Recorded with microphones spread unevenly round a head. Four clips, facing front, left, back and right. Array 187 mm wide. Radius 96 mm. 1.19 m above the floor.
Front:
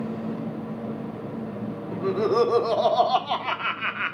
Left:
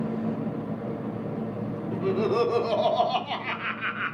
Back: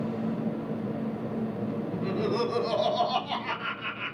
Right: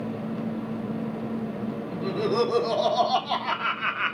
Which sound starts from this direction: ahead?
Laughter, at 1.9 s.